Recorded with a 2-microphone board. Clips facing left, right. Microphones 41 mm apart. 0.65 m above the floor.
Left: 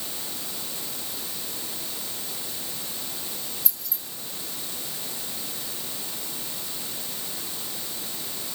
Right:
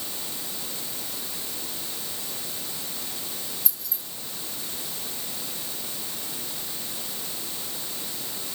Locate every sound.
3.6 s keys jangling: 5° right (ahead or behind), 5.5 m